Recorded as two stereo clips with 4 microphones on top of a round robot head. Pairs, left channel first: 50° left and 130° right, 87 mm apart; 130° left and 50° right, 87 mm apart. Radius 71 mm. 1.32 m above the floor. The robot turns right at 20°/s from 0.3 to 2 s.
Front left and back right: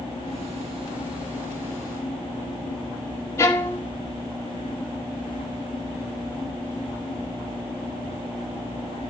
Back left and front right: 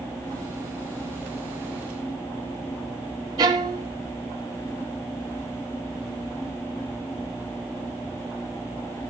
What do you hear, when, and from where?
3.4 s a violin: 10° right, 0.9 m